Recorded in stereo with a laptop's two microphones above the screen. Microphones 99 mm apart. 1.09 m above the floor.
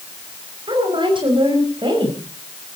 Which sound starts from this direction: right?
A woman speaking, at 0.7 s.